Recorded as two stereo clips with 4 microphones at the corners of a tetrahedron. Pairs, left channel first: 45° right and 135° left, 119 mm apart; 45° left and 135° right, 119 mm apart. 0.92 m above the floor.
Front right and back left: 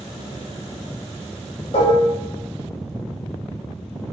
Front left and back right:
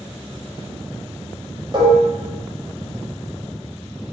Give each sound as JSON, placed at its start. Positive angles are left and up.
{"t": 1.7, "sound": "dishes clattering", "azimuth_deg": -85, "distance_m": 0.8}